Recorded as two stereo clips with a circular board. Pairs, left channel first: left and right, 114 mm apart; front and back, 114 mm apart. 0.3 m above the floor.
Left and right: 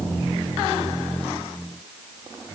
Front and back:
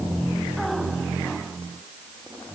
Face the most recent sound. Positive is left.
No sound to turn to.